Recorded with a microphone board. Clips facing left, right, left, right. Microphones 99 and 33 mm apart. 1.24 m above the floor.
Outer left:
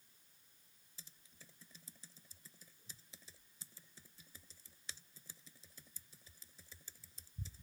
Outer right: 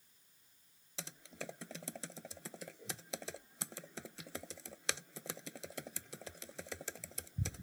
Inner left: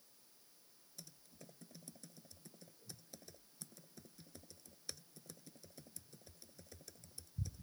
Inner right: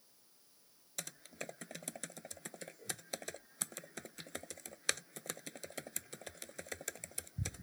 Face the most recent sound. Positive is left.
turn(degrees=-80)